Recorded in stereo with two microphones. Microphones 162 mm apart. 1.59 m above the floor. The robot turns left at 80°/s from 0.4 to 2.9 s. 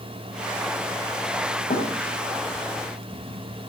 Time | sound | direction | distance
1.7 | a thud | 55° left (ahead or behind) | 5.5 m